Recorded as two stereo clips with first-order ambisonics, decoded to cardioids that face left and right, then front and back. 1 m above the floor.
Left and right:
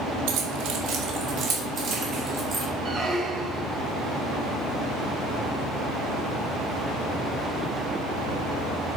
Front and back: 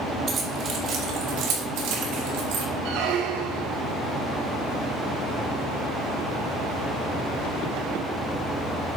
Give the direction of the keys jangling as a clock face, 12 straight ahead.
3 o'clock.